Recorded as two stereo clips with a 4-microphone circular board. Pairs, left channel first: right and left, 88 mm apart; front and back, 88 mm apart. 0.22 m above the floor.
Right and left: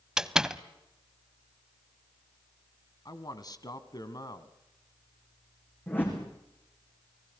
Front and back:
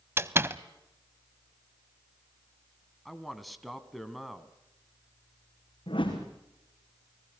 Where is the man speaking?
90° right, 1.7 m.